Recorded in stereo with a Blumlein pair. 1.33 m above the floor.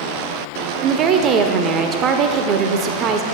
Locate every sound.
0.8 s a woman speaking: 30° right, 0.6 m